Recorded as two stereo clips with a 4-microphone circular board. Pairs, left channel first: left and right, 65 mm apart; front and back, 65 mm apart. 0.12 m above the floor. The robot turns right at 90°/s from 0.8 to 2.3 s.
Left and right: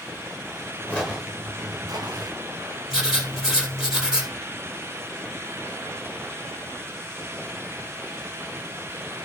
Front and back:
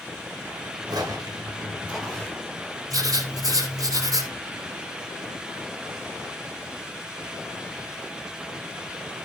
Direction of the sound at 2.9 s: 170° right.